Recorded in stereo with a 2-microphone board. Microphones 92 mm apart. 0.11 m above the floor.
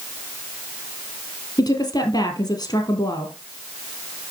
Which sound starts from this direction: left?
A woman speaking, at 1.6 s.